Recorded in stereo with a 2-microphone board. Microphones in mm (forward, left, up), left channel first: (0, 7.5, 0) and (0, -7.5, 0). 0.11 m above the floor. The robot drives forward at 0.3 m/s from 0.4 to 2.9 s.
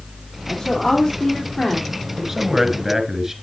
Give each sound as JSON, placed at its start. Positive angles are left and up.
{"t": 0.5, "sound": "a woman speaking", "side_deg": 55, "distance_m": 3.5}
{"t": 2.2, "sound": "a man speaking", "side_deg": -20, "distance_m": 1.3}